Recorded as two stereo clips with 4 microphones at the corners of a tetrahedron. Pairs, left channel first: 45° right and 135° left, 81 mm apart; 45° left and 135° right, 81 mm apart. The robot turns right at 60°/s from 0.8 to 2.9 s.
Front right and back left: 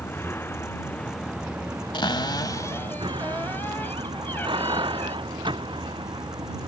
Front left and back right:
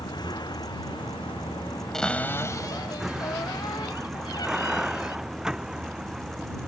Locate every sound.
0.0 s a vehicle: 15° left; by 6.7 s 140° left
1.9 s a cupboard door: 40° right; by 5.2 s 20° left